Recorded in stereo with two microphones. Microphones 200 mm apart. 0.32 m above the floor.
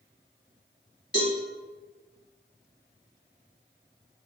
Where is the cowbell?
60° left (ahead or behind), 1.2 m.